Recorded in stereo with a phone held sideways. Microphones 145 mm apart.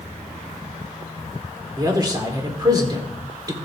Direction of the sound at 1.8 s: 25° right (ahead or behind).